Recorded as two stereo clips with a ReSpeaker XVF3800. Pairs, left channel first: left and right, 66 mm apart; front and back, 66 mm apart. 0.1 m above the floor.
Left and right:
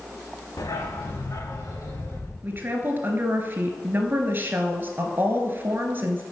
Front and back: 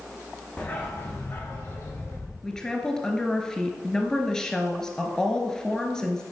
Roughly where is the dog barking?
Ahead left.